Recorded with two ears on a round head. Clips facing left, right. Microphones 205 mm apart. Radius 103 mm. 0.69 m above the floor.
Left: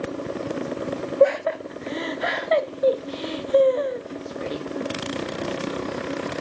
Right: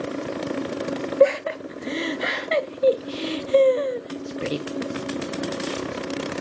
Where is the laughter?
40° right (ahead or behind), 1.0 m.